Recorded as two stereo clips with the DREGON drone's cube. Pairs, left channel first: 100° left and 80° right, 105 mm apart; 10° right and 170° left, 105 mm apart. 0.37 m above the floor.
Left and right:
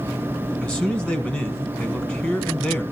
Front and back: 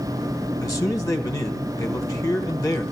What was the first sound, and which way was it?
A man speaking, 30° left.